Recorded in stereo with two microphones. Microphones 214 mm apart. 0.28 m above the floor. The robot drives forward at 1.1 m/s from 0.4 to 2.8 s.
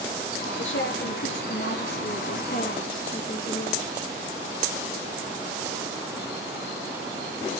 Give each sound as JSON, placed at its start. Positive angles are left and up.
{"t": 0.6, "sound": "a woman speaking", "side_deg": 65, "distance_m": 3.0}